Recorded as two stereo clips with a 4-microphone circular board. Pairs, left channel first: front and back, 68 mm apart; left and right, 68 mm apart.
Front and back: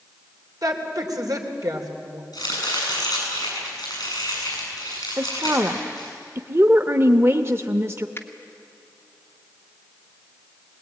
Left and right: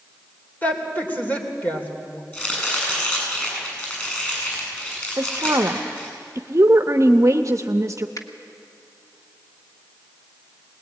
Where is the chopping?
25° left, 8 m.